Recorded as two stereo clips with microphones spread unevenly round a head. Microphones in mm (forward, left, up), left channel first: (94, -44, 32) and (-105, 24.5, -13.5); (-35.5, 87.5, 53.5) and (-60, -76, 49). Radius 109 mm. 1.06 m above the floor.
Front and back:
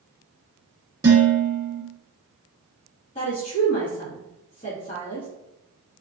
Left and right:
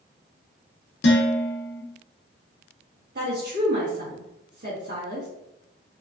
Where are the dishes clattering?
85° left, 0.9 m.